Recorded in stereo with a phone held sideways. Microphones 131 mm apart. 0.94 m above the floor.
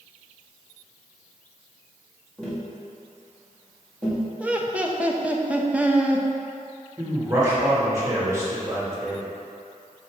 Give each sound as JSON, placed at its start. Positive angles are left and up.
{"t": 2.4, "sound": "tapping", "side_deg": 5, "distance_m": 1.9}
{"t": 4.4, "sound": "laughter", "side_deg": -10, "distance_m": 0.6}
{"t": 7.0, "sound": "a man speaking", "side_deg": -20, "distance_m": 1.7}